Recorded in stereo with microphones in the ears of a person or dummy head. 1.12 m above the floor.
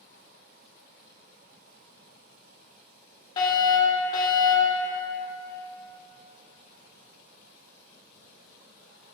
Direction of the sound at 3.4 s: 35° left (ahead or behind).